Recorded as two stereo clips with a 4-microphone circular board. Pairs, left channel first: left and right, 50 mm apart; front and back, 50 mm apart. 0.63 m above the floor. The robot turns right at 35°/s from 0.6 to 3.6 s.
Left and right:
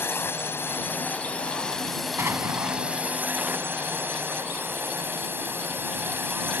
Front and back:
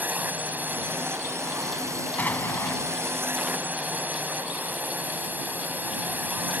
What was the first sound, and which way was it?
A drone, 125° left.